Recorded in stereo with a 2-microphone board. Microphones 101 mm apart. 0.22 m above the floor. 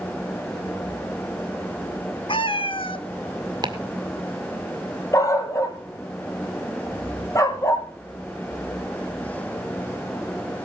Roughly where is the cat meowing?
Left.